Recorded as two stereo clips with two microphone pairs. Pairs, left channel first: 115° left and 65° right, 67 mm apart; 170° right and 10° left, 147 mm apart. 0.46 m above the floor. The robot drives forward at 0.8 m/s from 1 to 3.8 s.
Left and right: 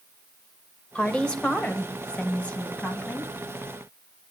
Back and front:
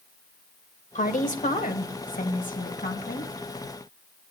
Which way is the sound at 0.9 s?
175° right.